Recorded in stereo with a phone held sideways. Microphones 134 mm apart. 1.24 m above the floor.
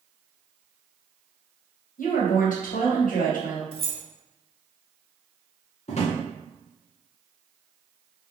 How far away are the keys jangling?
About 0.6 m.